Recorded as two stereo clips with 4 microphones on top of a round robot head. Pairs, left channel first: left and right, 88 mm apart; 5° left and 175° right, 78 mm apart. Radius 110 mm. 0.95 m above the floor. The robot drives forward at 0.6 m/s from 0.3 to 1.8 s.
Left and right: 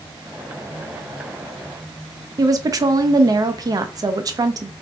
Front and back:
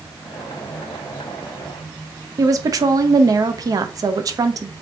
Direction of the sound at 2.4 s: 135° right.